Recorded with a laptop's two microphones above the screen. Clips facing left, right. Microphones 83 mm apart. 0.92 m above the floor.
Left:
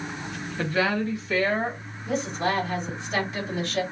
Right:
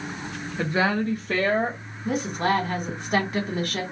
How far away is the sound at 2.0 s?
About 1.4 m.